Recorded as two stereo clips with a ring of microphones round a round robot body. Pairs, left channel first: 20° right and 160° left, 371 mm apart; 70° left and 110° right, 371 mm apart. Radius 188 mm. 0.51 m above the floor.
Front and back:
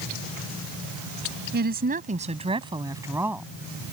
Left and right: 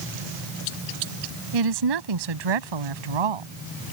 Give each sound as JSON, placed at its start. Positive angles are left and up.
{"t": 1.5, "sound": "a woman speaking", "azimuth_deg": -140}